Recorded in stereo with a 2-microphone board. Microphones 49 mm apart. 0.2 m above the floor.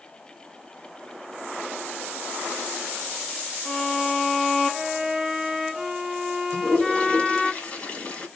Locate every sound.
3.6 s a violin: 5° right (ahead or behind), 1.8 m
6.5 s a toilet flushing: 30° left (ahead or behind), 1.4 m